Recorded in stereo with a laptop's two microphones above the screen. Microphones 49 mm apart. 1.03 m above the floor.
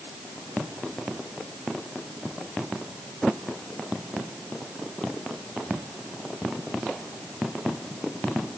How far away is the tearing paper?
I don't hear tearing paper.